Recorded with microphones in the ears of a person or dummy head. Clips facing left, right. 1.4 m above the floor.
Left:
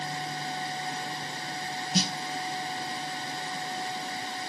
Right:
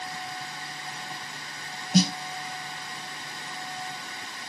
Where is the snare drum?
45° right (ahead or behind), 0.7 m.